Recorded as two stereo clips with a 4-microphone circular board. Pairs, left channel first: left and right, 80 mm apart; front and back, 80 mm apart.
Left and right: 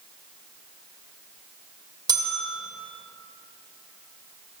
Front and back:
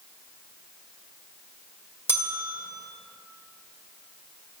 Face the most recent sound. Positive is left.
turn(degrees=-60)